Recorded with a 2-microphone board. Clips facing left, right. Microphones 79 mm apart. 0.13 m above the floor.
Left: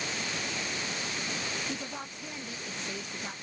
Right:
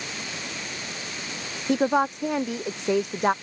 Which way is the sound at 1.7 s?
75° right (ahead or behind).